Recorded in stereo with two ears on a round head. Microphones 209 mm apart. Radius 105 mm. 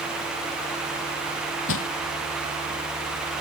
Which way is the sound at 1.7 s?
60° left (ahead or behind).